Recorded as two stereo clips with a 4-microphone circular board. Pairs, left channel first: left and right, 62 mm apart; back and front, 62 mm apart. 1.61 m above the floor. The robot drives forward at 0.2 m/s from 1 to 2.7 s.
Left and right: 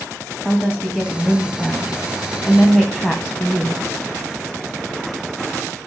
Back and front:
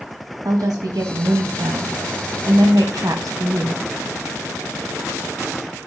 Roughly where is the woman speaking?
Ahead.